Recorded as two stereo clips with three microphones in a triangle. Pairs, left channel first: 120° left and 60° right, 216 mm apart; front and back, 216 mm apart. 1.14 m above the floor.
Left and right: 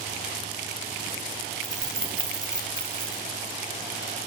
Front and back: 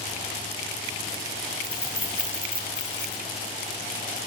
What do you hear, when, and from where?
1.6 s keys jangling: 65° left, 1.6 m; by 3.2 s 30° left, 1.8 m